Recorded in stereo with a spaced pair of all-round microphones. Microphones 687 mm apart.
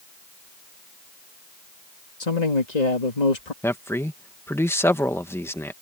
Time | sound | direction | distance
2.2 | a man speaking | 75° left (ahead or behind) | ?
3.6 | a man speaking | 5° left (ahead or behind) | ?